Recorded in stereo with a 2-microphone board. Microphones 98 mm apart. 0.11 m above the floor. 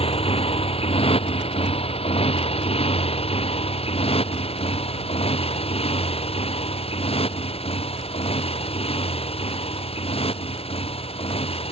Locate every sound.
0.0 s a motorcycle: 75° left (ahead or behind); by 11.7 s 80° left